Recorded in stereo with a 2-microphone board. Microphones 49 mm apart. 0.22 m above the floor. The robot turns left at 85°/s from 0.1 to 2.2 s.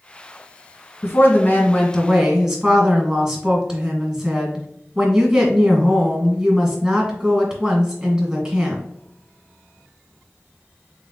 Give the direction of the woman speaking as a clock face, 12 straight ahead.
9 o'clock.